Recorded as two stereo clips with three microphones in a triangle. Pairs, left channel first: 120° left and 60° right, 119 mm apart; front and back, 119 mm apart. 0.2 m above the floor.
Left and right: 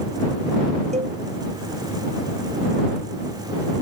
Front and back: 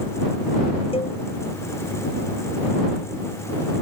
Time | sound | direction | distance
0.9 | a cowbell | 40° right | ?